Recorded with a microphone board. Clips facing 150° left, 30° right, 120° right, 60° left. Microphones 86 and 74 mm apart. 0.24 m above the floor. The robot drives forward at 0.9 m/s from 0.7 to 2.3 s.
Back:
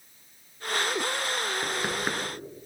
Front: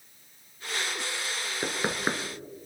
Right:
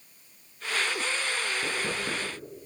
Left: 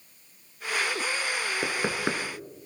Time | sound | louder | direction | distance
1.6 | knocking | even, left 3 dB | 35° left | 2.5 m